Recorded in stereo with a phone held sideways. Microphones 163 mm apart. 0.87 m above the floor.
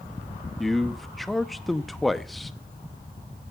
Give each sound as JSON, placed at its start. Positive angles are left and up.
{"t": 0.6, "sound": "a man speaking", "side_deg": 0, "distance_m": 0.7}